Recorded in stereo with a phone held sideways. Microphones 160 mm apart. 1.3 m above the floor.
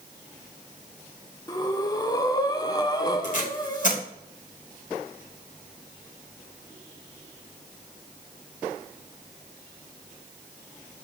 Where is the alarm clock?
I don't hear an alarm clock.